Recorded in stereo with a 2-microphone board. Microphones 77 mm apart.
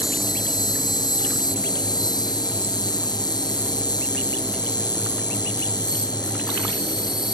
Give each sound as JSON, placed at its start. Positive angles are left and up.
{"t": 0.0, "sound": "an insect", "side_deg": 65}